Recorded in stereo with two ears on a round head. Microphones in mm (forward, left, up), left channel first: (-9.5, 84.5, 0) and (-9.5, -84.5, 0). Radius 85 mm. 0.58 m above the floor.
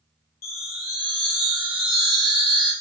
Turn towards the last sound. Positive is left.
turn(degrees=50)  # may be behind; listen again after turning